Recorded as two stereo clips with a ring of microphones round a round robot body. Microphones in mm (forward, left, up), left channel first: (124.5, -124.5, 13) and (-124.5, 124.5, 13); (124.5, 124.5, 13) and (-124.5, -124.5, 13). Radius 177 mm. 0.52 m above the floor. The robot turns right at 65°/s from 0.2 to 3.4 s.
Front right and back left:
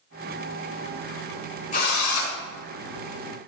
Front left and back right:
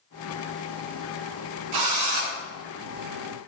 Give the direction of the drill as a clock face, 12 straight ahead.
4 o'clock.